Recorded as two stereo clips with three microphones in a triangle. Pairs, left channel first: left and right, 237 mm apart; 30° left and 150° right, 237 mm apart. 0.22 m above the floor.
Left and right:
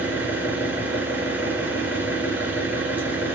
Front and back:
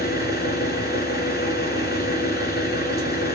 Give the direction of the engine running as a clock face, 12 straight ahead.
12 o'clock.